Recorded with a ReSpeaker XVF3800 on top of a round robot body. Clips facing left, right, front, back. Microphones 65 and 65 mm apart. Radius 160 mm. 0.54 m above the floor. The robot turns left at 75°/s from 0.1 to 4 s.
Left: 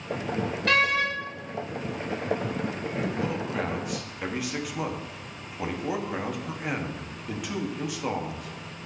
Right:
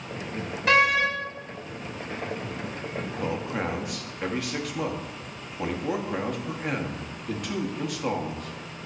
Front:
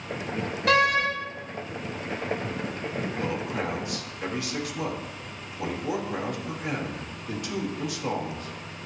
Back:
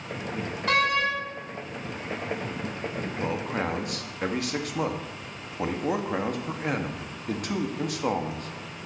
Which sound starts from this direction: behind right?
A man speaking, at 3.2 s.